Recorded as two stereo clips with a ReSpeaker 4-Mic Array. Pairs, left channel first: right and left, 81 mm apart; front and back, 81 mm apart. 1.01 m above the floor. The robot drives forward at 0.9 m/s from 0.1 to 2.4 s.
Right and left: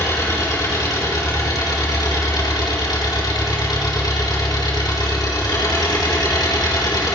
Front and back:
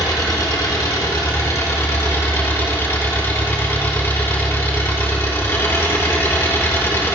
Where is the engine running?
40° right, 5 m; by 7.2 s 60° right, 3.5 m.